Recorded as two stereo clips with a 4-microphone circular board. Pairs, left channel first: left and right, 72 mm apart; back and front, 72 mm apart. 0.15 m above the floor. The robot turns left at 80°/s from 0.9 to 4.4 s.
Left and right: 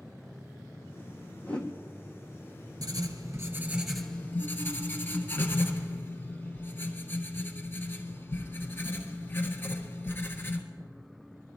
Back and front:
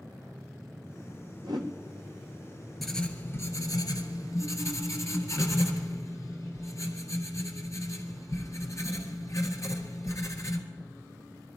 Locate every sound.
1.4 s a whoosh: 20° left, 1.6 m; by 1.7 s straight ahead, 1.6 m
2.8 s writing: 90° right, 1.4 m; by 10.6 s 145° left, 1.4 m